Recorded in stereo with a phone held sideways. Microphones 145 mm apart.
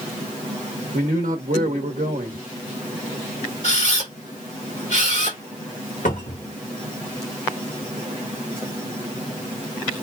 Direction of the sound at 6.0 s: 70° left (ahead or behind).